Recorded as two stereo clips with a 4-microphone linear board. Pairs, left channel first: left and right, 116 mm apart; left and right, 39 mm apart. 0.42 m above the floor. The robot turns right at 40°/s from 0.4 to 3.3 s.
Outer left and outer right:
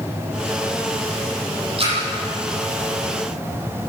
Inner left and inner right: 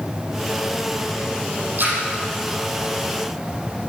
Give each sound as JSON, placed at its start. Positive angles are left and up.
{"t": 1.8, "sound": "a splash", "side_deg": -50, "distance_m": 9.0}